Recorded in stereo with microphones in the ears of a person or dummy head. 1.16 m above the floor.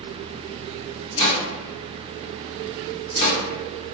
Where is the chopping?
25° left (ahead or behind), 0.8 m.